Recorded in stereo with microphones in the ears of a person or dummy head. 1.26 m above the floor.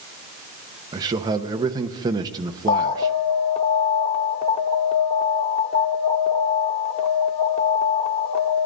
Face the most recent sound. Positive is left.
turn(degrees=30)  # may be behind; listen again after turning